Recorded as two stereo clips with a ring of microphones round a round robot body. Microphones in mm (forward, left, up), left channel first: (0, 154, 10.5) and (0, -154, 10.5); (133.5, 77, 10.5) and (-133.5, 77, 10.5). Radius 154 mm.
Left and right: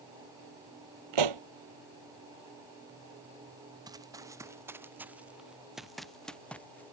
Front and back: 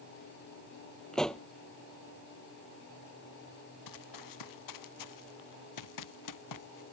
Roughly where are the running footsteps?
Ahead.